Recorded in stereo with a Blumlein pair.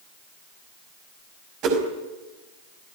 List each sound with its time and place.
1.6 s a whoosh: 35° right, 5 m